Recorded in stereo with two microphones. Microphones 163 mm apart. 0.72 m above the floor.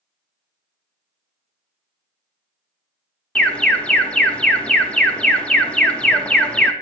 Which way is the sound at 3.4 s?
5° left (ahead or behind).